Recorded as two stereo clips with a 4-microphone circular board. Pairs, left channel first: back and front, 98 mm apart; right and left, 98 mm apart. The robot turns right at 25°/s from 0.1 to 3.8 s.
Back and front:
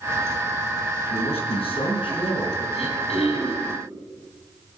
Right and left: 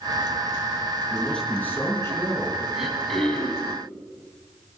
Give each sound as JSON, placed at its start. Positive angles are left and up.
{"t": 1.1, "sound": "a man speaking", "azimuth_deg": -175, "distance_m": 4.5}
{"t": 2.7, "sound": "throat clearing", "azimuth_deg": 175, "distance_m": 6.5}